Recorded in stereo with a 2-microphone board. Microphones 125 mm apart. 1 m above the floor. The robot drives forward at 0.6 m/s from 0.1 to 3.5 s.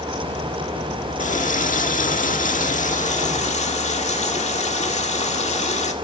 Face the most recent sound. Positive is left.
turn(degrees=60)  # may be behind; listen again after turning